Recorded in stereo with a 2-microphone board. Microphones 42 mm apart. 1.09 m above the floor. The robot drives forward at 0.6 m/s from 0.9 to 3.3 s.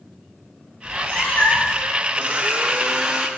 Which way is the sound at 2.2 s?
35° right (ahead or behind).